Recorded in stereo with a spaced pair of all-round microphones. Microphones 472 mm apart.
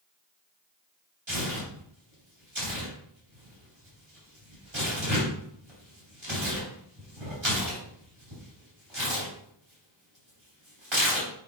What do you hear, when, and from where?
1.3 s tearing paper: 75° right (ahead or behind), 3 m